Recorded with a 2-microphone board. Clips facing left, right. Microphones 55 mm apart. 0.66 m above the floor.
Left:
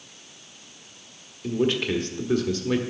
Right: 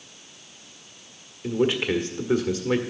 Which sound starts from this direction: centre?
A man speaking, at 1.4 s.